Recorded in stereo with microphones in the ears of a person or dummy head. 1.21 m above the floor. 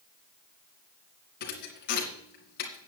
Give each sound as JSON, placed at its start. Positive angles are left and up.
{"t": 1.4, "sound": "a thud", "side_deg": 65, "distance_m": 2.5}